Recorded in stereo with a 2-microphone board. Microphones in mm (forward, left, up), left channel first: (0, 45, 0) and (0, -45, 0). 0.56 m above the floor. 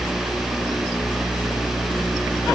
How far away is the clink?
No clink in this recording.